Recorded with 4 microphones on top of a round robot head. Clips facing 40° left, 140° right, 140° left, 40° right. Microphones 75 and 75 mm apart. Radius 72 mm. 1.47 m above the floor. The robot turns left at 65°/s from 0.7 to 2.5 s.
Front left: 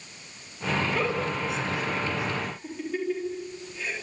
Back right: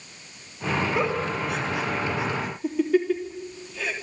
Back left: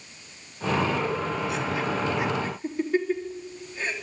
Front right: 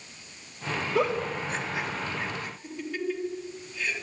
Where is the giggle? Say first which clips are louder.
Back right 2 dB, front right 1 dB; 60° right, 3.5 m; by 3.9 s 160° right, 3.5 m.